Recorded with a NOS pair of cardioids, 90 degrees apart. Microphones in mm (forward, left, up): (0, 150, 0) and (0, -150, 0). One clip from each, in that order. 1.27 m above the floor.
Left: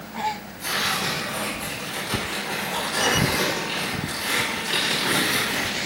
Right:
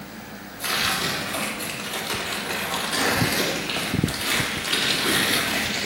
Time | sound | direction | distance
0.6 | tearing paper | 60° right | 4 m